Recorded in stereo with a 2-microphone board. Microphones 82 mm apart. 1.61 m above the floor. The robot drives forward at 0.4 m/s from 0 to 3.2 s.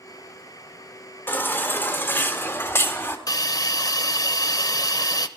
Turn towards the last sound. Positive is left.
turn(degrees=50)  # may be behind; listen again after turning